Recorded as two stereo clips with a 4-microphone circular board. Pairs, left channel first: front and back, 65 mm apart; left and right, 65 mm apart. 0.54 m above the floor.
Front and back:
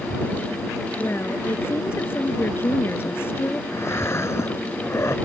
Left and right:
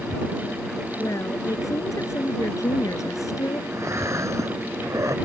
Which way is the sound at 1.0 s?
55° left.